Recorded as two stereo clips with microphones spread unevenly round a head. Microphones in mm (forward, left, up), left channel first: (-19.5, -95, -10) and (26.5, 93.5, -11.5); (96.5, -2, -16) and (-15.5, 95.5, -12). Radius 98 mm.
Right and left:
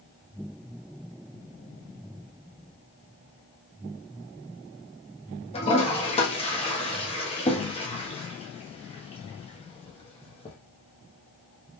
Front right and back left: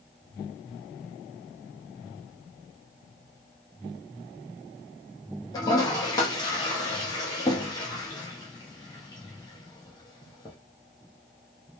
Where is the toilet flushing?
80° right, 1.1 m.